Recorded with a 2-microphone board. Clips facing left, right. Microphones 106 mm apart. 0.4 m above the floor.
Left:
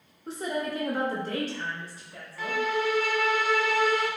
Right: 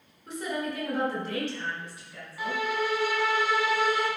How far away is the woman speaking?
About 1.0 m.